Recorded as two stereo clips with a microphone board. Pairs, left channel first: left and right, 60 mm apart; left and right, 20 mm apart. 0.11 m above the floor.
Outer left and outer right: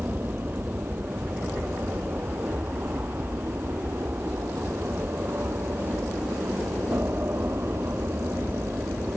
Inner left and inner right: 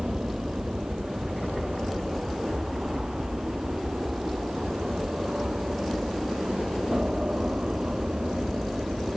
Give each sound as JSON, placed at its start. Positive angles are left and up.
{"t": 0.0, "sound": "an aircraft", "side_deg": -30}